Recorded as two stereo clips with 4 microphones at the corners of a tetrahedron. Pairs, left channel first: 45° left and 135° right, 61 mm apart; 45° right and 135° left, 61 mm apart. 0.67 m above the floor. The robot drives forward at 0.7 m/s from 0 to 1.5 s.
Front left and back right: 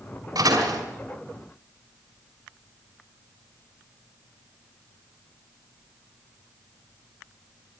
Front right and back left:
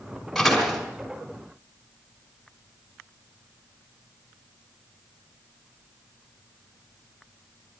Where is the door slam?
135° right, 4.5 m; by 0.8 s 140° right, 5 m.